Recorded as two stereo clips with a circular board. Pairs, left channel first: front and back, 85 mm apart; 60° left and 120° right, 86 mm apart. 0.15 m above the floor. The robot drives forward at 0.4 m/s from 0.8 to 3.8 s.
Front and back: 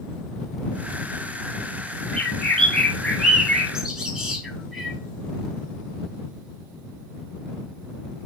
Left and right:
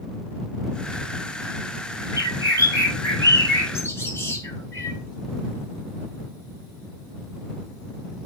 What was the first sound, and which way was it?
A bird, 70° left.